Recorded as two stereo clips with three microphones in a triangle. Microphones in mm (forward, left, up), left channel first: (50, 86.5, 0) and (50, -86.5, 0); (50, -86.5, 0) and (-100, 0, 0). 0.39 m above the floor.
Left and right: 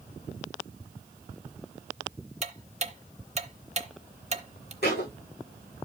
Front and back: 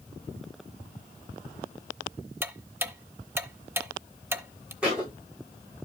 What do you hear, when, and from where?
2.4 s ticking: 135° right, 0.8 m
4.8 s a thud: 65° left, 8.5 m